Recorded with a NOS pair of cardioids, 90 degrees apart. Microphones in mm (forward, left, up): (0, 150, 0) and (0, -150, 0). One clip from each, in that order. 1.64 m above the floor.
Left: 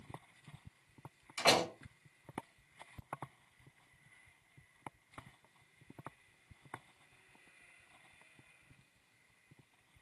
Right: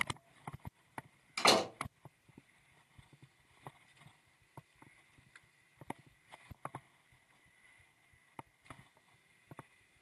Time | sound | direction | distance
1.4 | a door slam | 65° right | 1.9 m